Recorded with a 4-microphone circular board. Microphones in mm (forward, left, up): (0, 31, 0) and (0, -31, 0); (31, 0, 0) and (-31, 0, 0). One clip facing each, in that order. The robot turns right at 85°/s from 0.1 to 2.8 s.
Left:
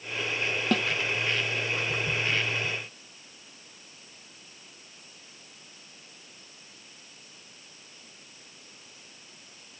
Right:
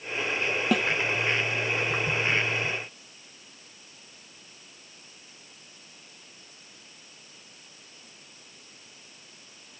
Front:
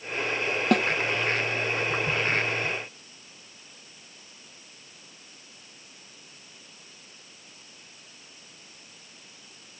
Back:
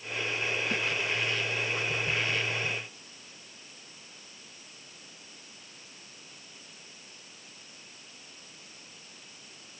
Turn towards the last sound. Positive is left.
turn(degrees=170)